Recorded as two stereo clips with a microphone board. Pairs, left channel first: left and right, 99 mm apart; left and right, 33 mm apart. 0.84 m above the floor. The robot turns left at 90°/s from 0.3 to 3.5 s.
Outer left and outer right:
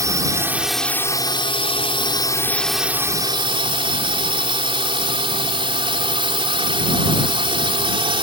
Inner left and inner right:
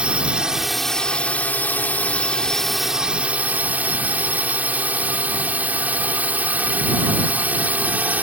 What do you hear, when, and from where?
0.0 s a drone: 140° right; by 8.2 s 70° right